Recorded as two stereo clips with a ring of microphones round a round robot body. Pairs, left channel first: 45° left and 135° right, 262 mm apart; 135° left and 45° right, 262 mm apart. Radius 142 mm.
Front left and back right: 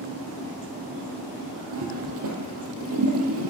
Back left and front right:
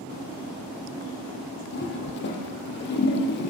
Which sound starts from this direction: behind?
A toilet flushing, at 1.7 s.